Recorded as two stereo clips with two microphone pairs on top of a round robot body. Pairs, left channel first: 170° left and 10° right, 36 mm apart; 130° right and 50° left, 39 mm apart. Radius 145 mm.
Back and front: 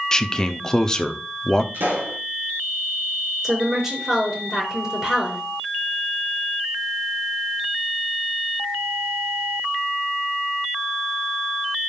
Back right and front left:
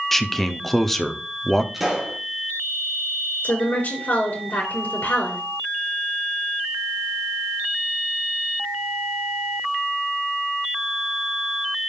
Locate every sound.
0.1 s a man speaking: 165° right, 1.1 m
1.7 s a pop: 40° right, 2.5 m
3.4 s a woman speaking: 95° right, 6.5 m